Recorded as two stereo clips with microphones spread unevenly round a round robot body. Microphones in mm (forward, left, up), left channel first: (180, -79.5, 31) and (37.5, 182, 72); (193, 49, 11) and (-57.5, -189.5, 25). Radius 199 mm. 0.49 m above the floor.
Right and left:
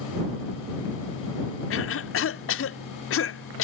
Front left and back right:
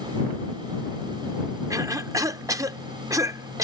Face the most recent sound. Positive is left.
turn(degrees=-55)